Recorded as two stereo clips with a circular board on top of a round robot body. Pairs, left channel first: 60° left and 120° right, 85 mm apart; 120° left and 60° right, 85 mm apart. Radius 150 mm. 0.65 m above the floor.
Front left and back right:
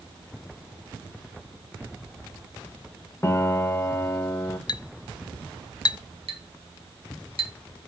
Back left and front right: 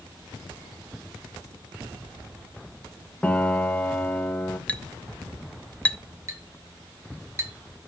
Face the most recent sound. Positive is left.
turn(degrees=-115)